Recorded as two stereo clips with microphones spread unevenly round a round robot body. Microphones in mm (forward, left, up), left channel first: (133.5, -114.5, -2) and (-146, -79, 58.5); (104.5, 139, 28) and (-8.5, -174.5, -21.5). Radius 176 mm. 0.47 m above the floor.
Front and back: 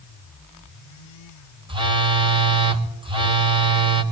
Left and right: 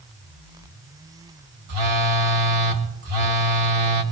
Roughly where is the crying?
No crying in this recording.